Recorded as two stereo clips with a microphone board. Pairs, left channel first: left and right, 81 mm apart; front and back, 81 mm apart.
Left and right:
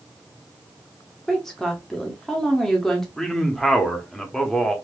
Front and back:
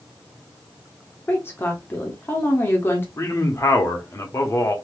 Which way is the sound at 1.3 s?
10° left.